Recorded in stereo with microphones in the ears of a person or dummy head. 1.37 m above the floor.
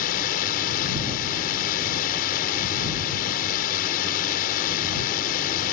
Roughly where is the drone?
Left.